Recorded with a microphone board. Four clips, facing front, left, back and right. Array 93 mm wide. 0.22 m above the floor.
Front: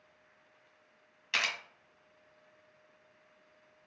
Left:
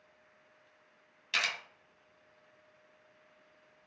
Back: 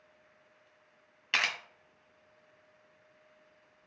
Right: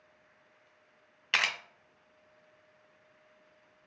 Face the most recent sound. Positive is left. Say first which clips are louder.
# right 4 dB, back 2 dB
turn(degrees=-115)